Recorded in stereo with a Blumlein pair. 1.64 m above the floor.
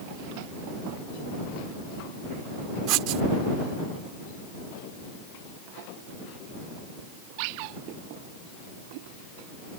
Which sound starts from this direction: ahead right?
Writing, at 2.9 s.